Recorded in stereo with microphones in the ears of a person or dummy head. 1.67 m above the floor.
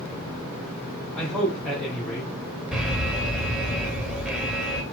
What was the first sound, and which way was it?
A man speaking, 5° left (ahead or behind).